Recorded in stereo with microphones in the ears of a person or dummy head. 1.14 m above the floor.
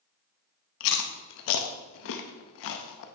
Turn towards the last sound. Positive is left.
turn(degrees=60)  # may be behind; listen again after turning